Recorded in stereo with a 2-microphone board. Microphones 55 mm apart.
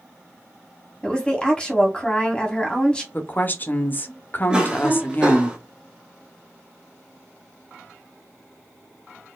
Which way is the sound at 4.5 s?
15° right (ahead or behind).